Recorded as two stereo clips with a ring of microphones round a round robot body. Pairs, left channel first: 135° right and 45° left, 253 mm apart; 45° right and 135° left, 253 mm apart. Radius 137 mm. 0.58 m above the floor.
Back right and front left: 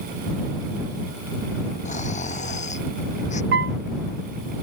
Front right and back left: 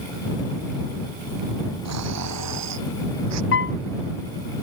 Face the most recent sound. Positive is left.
turn(degrees=0)